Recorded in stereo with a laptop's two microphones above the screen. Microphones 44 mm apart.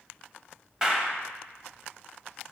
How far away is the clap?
About 1.1 m.